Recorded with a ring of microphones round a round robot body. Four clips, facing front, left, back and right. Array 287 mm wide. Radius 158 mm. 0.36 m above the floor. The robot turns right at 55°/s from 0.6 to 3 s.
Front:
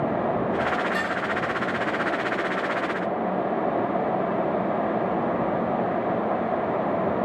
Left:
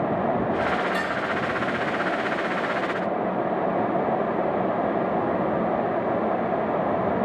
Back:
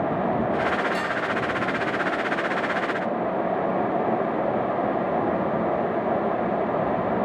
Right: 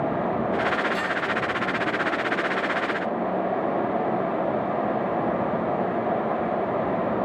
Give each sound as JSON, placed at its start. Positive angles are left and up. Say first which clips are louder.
{"t": 0.9, "sound": "dishes clattering", "louder": "even, even", "azimuth_deg": 70, "distance_m": 3.0}